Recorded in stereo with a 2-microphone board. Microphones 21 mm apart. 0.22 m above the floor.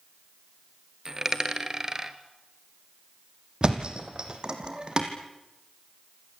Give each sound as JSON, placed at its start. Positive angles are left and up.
{"t": 1.1, "sound": "a dropped coin", "side_deg": -30, "distance_m": 1.3}
{"t": 3.6, "sound": "a thud", "side_deg": -40, "distance_m": 2.5}